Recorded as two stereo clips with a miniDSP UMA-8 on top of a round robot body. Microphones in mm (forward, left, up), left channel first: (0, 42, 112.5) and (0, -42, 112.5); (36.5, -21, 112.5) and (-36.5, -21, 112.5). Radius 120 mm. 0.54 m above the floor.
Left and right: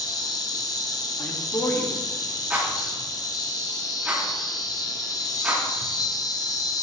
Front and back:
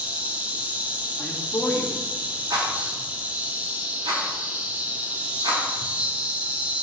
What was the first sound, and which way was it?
An insect, 115° left.